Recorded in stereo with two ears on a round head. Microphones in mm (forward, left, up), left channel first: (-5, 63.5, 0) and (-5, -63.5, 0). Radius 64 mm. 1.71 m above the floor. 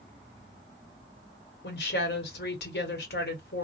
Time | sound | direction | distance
1.6 | a woman speaking | 85° left | 1.4 m